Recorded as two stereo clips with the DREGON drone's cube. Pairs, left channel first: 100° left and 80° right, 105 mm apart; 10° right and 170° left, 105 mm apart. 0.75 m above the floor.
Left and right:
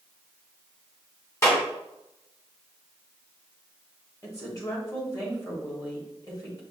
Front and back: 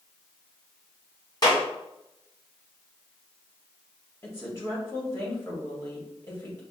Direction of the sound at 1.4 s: 40° left.